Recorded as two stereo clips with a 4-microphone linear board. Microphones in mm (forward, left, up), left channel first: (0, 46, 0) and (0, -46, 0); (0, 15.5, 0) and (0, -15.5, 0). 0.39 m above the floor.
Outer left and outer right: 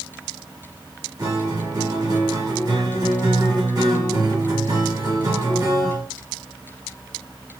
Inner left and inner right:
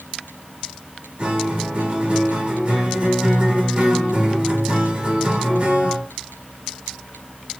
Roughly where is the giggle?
I don't hear a giggle.